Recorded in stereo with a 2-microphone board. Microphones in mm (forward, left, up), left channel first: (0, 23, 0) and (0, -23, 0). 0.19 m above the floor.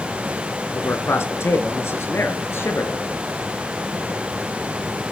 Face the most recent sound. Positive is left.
turn(degrees=55)  # may be behind; listen again after turning